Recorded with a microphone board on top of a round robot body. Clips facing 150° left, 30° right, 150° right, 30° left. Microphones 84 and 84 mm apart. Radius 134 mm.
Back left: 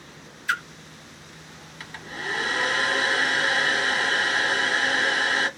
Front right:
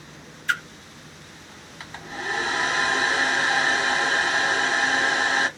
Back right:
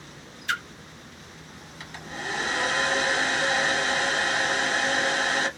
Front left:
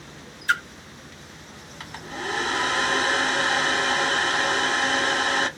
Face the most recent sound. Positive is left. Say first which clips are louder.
# front right 2 dB, front left 3 dB
turn(degrees=20)